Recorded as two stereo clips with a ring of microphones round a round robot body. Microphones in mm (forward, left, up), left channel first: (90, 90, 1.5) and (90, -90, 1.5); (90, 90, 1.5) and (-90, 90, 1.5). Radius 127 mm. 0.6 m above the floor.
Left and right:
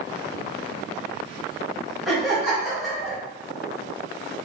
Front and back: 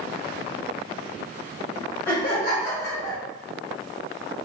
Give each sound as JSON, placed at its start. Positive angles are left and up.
{"t": 2.1, "sound": "laughter", "azimuth_deg": 0, "distance_m": 1.5}